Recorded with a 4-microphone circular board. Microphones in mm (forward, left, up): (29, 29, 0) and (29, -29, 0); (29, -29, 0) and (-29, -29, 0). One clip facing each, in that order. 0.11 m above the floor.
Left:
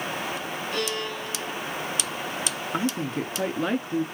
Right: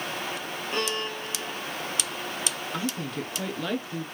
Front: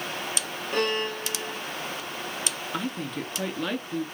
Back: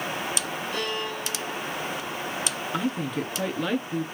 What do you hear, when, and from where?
0.7 s a violin: 40° right, 4 m
2.7 s a woman speaking: 100° left, 1.6 m